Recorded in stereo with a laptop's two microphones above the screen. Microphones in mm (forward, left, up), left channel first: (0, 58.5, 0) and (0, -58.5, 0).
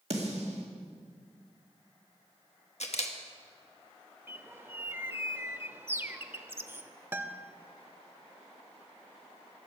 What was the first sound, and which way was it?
A snare drum, 60° right (ahead or behind).